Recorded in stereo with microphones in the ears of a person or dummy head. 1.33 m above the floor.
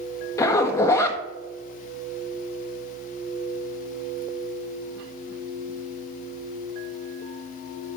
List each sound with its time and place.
0.4 s a zipper: 20° left (ahead or behind), 1.0 m